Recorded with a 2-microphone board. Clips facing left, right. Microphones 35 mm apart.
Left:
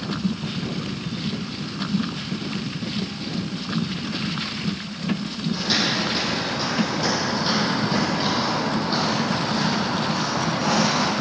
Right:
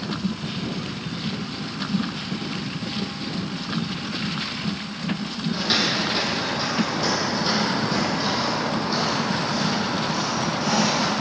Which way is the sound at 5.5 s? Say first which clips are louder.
Even; 15° right (ahead or behind).